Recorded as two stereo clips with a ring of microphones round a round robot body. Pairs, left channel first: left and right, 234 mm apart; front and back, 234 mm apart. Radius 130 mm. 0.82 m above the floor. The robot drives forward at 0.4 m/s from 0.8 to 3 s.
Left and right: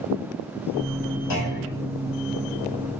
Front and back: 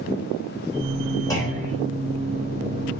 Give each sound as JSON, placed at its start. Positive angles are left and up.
{"t": 1.3, "sound": "a clunk", "azimuth_deg": 75, "distance_m": 2.5}